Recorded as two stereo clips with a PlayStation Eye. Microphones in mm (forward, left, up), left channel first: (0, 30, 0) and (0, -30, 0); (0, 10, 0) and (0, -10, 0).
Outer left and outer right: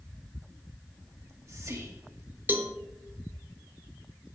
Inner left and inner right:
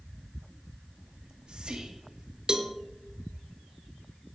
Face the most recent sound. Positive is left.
turn(degrees=-40)  # may be behind; listen again after turning